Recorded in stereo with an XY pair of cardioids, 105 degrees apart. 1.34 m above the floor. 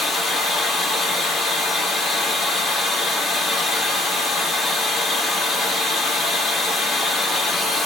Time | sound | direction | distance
0.0 | running water | 55° left | 1.4 m